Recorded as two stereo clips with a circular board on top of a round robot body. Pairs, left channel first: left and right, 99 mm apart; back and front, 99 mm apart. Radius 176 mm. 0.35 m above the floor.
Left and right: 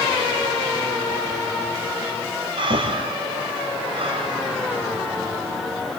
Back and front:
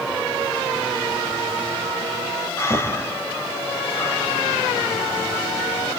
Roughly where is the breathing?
Behind right.